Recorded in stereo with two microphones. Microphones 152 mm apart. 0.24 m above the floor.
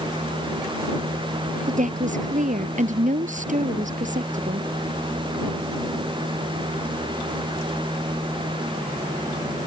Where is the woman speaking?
55° right (ahead or behind).